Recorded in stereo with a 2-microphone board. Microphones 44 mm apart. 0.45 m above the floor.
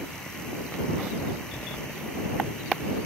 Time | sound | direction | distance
1.5 | a door slam | 80° left | ?